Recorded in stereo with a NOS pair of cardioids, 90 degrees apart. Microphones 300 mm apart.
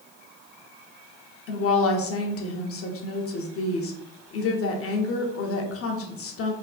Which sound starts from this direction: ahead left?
A woman speaking, at 1.5 s.